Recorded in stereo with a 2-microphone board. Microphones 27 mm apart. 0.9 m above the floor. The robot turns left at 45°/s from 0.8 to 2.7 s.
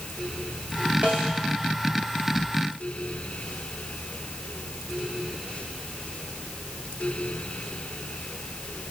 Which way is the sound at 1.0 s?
80° right.